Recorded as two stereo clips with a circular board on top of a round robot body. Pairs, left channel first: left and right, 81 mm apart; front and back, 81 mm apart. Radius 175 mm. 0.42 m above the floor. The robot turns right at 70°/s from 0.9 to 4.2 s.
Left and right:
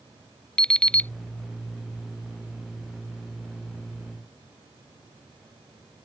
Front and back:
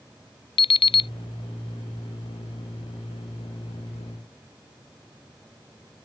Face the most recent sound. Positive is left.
turn(degrees=-120)